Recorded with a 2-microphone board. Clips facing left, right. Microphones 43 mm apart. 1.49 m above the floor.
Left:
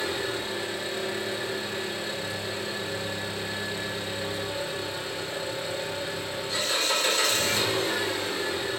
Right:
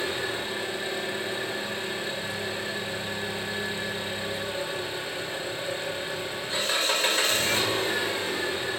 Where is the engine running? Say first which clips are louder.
Even; 30° right (ahead or behind), 1.6 m.